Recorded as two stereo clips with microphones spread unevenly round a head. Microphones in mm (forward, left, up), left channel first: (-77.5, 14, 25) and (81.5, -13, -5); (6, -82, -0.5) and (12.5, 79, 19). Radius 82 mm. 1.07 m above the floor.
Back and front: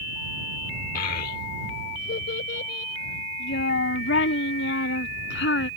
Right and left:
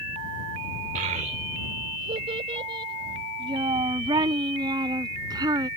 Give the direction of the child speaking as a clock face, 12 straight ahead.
7 o'clock.